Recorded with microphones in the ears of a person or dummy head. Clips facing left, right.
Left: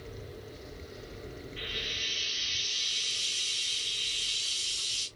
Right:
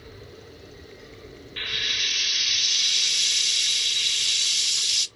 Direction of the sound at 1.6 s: 75° right (ahead or behind).